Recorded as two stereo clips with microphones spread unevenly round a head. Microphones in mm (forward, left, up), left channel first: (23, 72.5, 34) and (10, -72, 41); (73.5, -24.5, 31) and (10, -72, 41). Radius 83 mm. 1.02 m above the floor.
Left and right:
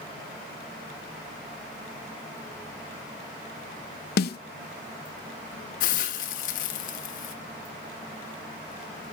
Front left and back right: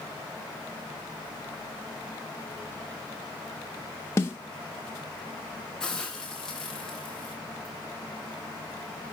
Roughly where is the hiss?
Behind left.